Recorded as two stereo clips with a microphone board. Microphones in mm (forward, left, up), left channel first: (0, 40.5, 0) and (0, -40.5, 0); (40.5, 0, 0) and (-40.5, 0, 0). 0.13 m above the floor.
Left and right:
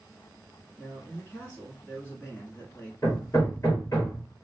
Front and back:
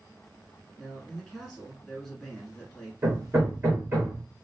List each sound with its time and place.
0.8 s a man speaking: 75° left, 1.1 m
3.0 s hammering: 130° left, 2 m